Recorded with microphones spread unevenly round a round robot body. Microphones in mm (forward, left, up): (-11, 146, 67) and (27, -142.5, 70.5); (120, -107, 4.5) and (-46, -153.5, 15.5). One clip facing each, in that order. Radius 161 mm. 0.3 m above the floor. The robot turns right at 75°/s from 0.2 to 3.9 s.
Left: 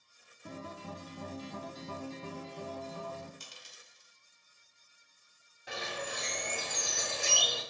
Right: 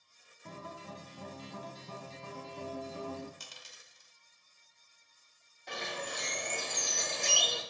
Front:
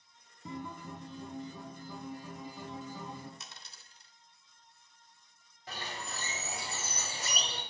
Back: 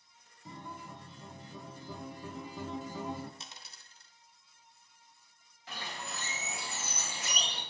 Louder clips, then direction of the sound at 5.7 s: Left 1 dB, front 1 dB; 20° left.